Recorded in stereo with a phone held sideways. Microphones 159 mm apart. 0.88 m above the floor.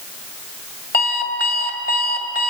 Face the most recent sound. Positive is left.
turn(degrees=90)